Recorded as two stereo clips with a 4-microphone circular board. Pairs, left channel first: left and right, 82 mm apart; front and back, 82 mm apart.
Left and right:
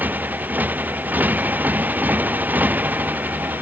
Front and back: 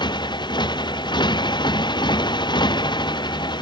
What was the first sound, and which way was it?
A motorcycle, 20° right.